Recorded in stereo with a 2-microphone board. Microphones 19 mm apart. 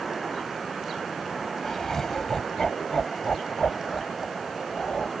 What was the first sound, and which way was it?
Laughter, 25° left (ahead or behind).